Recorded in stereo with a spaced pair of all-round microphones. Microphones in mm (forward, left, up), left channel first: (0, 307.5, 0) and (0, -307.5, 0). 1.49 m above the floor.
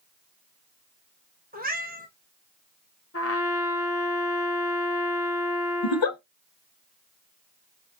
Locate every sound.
1.5 s a cat meowing: 15° right (ahead or behind), 0.8 m
3.1 s a trumpet: 25° left (ahead or behind), 0.6 m
5.8 s a giggle: 50° left (ahead or behind), 0.6 m